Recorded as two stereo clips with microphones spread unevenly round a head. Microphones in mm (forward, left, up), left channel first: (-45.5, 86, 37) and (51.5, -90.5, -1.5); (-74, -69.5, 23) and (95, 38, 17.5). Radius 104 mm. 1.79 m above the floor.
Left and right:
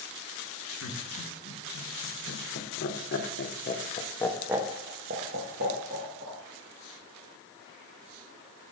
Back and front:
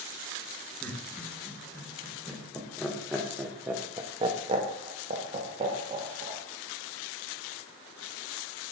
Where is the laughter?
135° left, 3 m; by 6.4 s 30° right, 1.8 m.